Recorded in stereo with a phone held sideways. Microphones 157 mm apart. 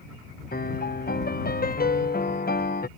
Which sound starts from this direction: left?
A piano, at 0.5 s.